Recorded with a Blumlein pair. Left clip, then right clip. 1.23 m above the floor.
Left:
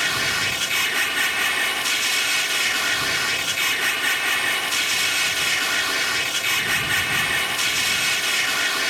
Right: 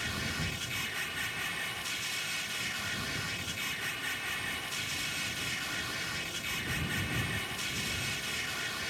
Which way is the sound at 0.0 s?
55° left.